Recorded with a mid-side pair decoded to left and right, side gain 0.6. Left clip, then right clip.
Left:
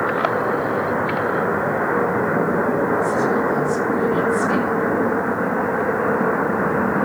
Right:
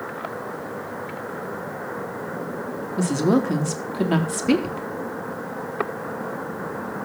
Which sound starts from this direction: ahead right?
A woman speaking, at 3.0 s.